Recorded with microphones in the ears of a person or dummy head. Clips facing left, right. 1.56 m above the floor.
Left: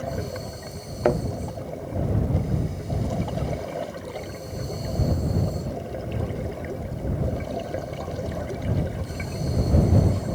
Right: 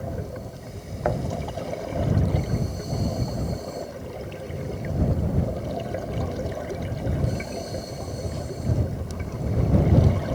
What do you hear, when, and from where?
1.1 s a thud: 40° left (ahead or behind)